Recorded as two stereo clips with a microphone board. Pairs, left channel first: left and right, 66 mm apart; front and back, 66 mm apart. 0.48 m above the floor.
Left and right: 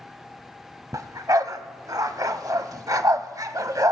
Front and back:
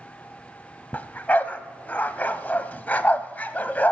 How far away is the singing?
I don't hear singing.